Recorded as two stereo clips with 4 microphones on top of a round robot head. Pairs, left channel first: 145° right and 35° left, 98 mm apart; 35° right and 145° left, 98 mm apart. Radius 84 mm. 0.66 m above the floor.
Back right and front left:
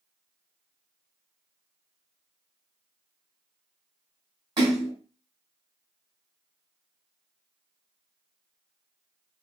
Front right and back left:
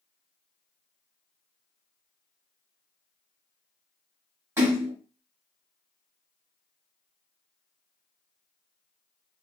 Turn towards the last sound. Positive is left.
turn(degrees=80)